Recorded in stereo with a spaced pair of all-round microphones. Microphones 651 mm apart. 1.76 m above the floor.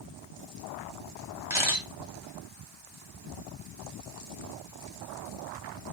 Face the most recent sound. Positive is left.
turn(degrees=-5)  # may be behind; listen again after turning